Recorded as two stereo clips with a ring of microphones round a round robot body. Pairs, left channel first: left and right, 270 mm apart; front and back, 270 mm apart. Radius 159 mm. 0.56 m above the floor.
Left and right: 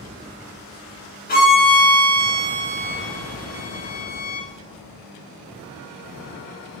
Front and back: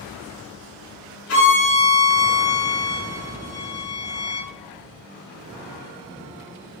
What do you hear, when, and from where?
1.3 s a violin: 35° left, 1.9 m